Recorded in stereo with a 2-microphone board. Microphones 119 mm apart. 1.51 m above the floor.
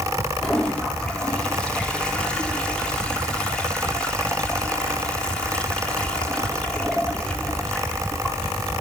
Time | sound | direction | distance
0.4 | a toilet flushing | 10° left (ahead or behind) | 4 m